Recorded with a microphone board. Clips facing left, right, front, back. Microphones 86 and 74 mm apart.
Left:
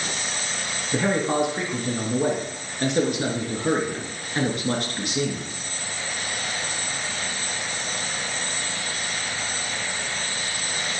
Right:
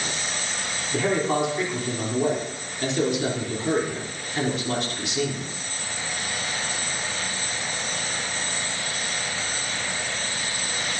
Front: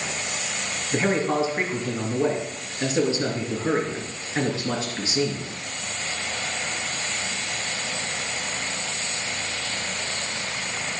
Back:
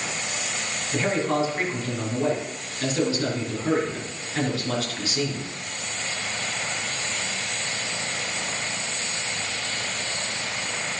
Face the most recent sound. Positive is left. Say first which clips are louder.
# left 1 dB, front 1 dB
turn(degrees=65)